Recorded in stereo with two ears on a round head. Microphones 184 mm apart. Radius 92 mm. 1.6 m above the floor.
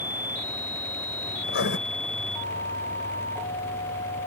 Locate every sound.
1.4 s writing: 55° left (ahead or behind)